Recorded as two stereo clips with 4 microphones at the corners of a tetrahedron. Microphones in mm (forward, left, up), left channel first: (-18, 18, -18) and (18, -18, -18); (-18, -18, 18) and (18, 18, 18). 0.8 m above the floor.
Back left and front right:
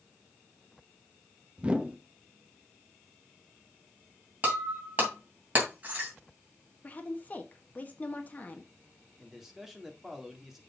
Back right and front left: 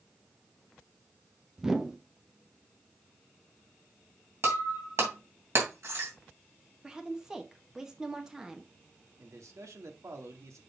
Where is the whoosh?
20° right, 0.8 m.